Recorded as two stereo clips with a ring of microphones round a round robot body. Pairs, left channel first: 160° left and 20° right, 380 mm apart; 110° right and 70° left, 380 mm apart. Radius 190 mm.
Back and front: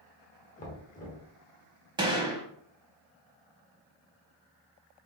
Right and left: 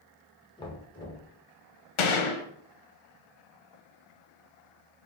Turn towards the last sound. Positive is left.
turn(degrees=-100)